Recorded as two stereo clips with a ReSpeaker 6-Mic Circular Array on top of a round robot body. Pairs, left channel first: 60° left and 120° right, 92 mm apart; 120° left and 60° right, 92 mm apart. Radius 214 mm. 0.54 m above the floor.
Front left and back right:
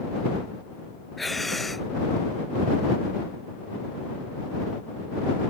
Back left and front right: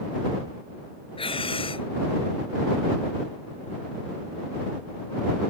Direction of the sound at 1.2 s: 150° left.